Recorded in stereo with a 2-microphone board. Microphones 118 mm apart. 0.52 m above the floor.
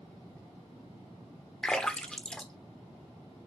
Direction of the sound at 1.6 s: 5° left (ahead or behind).